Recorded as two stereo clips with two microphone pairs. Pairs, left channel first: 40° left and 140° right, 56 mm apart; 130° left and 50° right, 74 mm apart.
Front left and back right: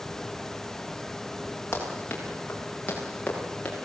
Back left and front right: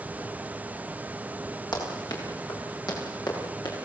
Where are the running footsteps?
100° left, 7.5 m; by 3.8 s 105° left, 8 m.